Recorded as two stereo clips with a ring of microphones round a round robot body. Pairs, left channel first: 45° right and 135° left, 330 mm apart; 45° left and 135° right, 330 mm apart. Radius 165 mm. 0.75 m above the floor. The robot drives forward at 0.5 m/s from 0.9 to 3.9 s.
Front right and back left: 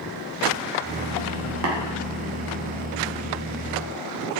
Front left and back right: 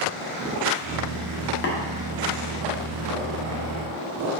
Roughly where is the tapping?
Left.